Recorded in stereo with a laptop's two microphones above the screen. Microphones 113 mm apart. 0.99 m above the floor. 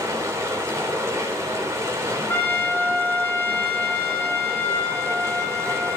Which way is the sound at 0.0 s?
30° right (ahead or behind).